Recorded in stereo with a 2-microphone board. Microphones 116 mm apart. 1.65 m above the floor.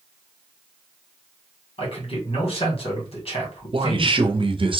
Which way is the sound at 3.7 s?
50° right (ahead or behind).